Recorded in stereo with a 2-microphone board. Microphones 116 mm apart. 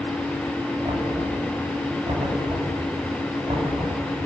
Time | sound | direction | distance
0.8 | knocking | 70° right (ahead or behind) | 7.5 m